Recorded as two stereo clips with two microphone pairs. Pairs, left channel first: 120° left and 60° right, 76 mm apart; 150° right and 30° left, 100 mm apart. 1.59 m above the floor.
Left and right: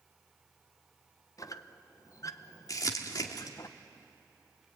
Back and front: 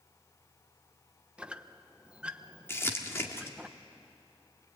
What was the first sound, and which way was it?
A squeak, 105° left.